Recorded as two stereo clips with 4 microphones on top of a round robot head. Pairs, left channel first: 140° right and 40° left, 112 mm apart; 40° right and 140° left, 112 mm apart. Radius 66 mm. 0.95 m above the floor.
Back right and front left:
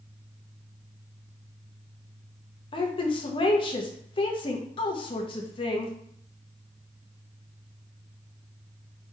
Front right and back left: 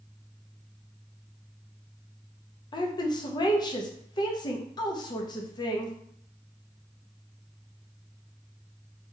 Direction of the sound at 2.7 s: 95° right.